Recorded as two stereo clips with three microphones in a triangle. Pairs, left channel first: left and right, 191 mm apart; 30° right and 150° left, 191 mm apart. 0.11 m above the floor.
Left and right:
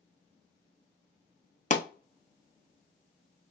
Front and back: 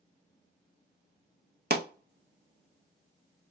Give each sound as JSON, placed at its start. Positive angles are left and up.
{"t": 1.7, "sound": "a pop", "azimuth_deg": 130, "distance_m": 0.7}